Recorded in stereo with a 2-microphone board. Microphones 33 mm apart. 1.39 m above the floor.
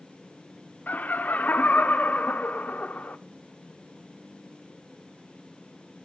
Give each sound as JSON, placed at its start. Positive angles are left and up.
{"t": 0.9, "sound": "laughter", "side_deg": 60, "distance_m": 0.6}